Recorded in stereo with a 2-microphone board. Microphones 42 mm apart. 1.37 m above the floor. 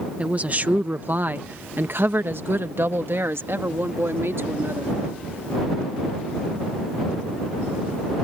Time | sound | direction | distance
0.2 | a woman speaking | 30° right (ahead or behind) | ?